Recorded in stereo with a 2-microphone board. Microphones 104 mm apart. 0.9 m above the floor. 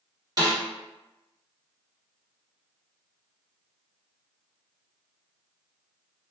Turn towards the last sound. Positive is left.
turn(degrees=-40)  # may be behind; listen again after turning